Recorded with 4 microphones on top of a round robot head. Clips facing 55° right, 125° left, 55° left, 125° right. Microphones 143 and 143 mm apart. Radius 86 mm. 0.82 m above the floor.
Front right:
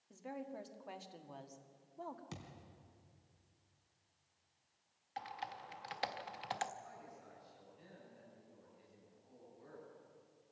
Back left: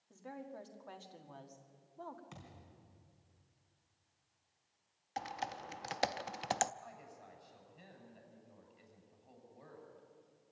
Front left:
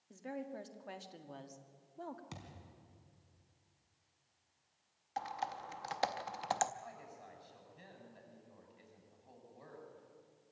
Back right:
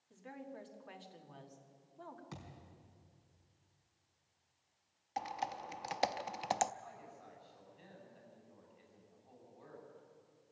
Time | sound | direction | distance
0.1 | a woman speaking | 20° left | 1.9 m
2.3 | a thud | 10° right | 3.5 m
5.2 | typing on a keyboard | 160° left | 0.5 m
6.8 | a woman speaking | 105° left | 7.5 m